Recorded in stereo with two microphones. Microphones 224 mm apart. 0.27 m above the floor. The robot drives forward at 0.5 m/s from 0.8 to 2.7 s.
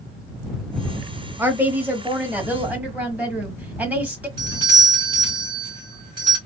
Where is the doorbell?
20° right (ahead or behind), 2.5 m.